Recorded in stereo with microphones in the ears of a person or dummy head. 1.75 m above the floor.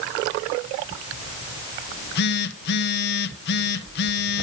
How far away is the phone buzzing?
About 1.4 m.